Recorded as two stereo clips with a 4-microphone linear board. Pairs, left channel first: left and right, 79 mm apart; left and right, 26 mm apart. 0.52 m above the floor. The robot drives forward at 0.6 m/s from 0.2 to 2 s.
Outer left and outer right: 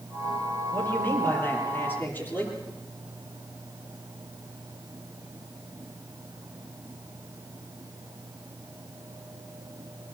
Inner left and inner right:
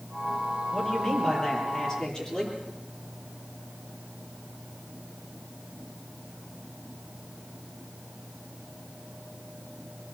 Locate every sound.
0.7 s a man speaking: 30° left (ahead or behind), 9.5 m; by 2.6 s 25° left (ahead or behind), 10 m